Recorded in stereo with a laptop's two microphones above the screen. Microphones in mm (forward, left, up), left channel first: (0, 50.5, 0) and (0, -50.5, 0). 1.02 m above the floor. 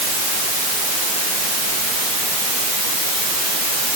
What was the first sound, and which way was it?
Only background noise.